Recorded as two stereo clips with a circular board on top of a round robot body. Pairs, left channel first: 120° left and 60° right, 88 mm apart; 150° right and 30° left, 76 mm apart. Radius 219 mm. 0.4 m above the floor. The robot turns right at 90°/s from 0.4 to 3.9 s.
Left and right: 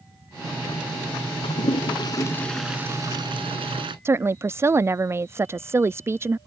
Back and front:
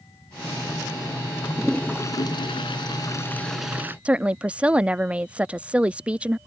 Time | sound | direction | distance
1.4 | a toilet flushing | 105° left | ?
4.0 | a woman speaking | 30° right | ?